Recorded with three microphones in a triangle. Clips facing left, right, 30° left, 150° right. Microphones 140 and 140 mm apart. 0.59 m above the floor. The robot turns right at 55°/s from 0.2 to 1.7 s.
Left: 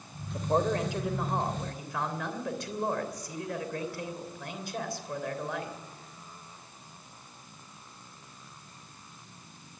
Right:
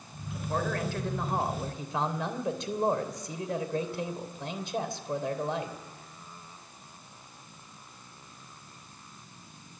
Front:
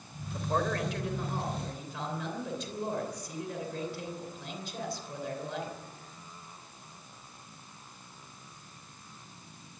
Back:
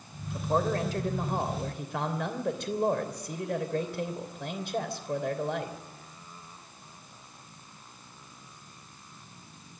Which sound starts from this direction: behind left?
A man speaking, at 0.3 s.